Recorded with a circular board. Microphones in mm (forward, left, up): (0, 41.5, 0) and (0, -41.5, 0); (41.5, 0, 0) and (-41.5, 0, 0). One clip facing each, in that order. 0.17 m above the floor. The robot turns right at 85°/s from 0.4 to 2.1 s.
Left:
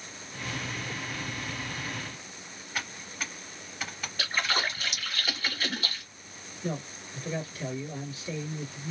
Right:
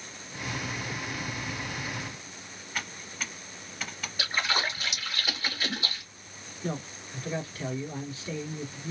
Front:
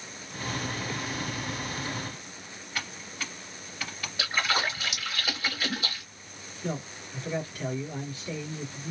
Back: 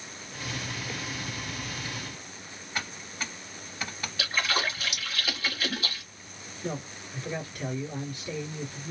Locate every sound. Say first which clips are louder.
2.8 s typing on a keyboard: even, back 1 dB; 170° left, 0.9 m
4.2 s a splash: even, front 1 dB; 35° right, 1.8 m
6.6 s a man speaking: even, front 1 dB; 90° right, 1.6 m